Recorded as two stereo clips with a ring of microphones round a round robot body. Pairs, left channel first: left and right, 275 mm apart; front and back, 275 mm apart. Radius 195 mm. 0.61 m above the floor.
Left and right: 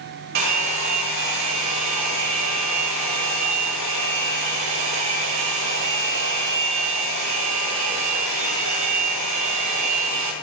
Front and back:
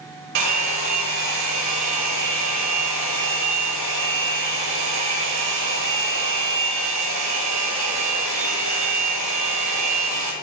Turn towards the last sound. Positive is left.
turn(degrees=-135)